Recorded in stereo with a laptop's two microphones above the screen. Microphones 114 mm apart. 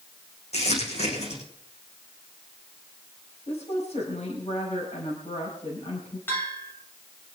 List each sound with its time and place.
0.5 s crumpling: 65° left (ahead or behind), 7.5 m
3.5 s a woman speaking: 70° left (ahead or behind), 5.5 m
6.3 s a bell: 20° left (ahead or behind), 3 m